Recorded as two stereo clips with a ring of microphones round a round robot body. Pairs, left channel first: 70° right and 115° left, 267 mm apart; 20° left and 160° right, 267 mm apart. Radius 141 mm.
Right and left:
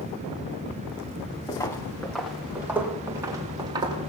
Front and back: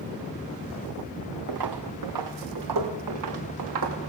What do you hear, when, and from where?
1.5 s footsteps: 145° right, 2.5 m; by 4.1 s 175° right, 5 m